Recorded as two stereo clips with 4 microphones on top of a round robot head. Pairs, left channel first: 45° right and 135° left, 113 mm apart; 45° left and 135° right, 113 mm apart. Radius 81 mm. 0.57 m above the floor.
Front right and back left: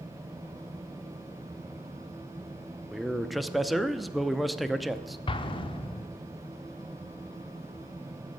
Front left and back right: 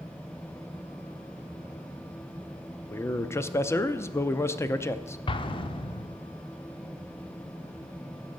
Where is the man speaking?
45° left, 0.6 m.